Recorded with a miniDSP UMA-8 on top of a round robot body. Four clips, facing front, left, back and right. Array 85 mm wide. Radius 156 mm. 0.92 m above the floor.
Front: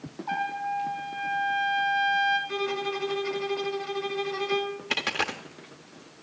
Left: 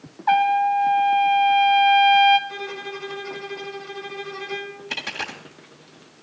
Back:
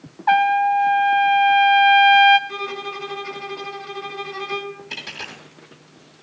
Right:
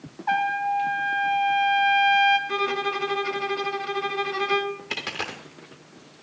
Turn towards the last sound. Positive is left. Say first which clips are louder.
# even, front 6 dB
turn(degrees=-20)